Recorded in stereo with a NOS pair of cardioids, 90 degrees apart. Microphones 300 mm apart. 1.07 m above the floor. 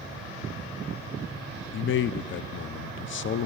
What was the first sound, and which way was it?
A man speaking, 45° left.